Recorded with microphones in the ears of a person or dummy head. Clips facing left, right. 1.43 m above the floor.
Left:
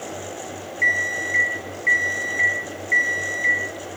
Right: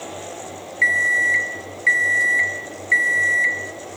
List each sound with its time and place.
0.8 s an alarm clock: 60° right (ahead or behind), 1.0 m